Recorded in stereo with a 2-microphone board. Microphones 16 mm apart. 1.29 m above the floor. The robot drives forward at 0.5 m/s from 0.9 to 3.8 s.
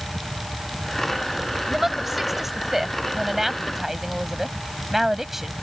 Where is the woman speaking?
20° right (ahead or behind).